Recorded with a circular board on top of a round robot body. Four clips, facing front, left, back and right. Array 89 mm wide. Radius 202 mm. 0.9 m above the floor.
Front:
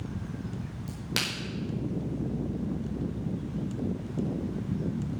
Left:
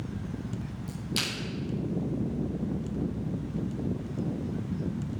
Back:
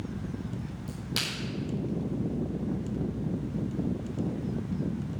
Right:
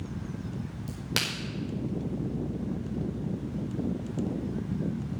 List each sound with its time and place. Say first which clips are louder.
0.9 s a crack: right 1 dB, front 3 dB; 60° right, 4.5 m